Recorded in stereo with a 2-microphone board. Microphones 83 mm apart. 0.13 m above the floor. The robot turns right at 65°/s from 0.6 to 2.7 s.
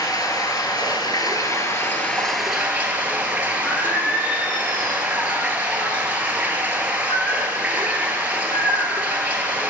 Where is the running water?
65° left, 1.0 m; by 9.7 s 160° right, 1.0 m.